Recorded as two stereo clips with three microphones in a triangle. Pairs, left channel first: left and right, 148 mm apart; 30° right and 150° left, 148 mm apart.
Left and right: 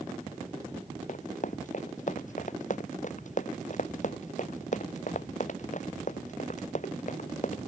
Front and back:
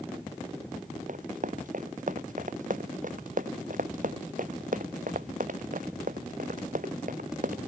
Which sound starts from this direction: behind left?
Running footsteps, at 1.1 s.